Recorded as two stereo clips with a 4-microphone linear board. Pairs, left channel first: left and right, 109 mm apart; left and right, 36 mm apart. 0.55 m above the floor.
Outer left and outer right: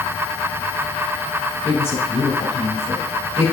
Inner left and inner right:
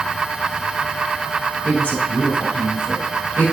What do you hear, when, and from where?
1.6 s a woman speaking: 70° left (ahead or behind), 4 m